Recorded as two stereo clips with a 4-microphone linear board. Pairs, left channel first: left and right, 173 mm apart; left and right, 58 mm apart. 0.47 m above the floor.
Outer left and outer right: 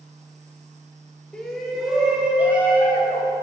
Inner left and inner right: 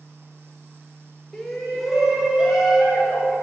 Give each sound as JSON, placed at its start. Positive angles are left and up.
{"t": 1.3, "sound": "a shout", "side_deg": 5, "distance_m": 1.5}